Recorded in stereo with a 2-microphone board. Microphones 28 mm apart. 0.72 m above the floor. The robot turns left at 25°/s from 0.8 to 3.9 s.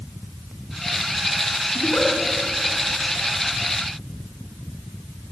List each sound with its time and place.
1.8 s a giggle: 90° left, 4 m; by 2.1 s 85° left, 4 m